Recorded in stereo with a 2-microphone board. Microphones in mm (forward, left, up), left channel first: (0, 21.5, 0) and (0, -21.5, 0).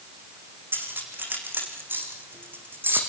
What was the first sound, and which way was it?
Cutlery clinking, 55° right (ahead or behind).